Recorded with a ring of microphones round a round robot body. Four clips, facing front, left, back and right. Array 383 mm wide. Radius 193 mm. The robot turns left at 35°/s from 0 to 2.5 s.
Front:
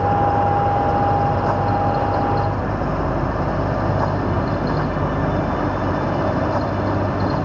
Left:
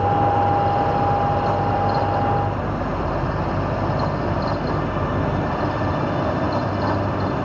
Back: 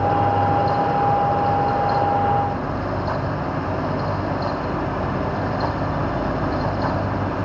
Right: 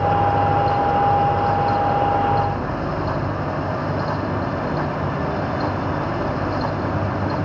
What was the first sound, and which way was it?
Only background noise.